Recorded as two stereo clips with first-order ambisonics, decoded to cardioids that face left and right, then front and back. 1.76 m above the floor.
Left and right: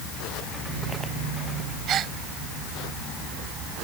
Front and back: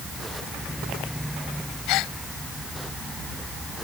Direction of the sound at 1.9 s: 35° right.